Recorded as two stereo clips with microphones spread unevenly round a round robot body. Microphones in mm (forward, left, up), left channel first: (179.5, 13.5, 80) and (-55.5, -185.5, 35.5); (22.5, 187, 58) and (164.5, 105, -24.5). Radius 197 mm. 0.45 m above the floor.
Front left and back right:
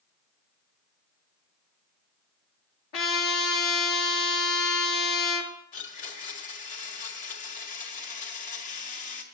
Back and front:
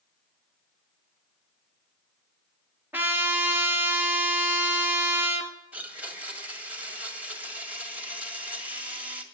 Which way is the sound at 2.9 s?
55° left.